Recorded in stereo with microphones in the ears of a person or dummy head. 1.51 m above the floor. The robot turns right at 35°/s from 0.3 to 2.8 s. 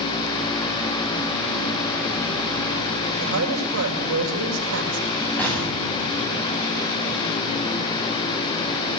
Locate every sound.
3.2 s a woman speaking: 70° right (ahead or behind), 6.5 m
5.4 s an explosion: 10° left (ahead or behind), 8.5 m